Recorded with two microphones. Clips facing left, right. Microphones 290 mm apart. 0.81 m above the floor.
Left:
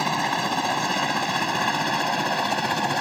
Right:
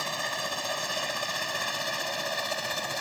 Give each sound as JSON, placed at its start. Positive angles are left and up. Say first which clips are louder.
{"t": 0.0, "sound": "a helicopter", "louder": "left 10 dB", "side_deg": 75}